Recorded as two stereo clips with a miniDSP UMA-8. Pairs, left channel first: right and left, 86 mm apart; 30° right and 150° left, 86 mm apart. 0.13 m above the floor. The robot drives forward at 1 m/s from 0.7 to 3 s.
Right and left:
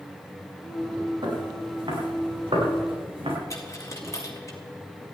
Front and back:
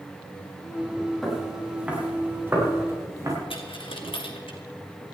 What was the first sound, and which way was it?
Footsteps, 60° left.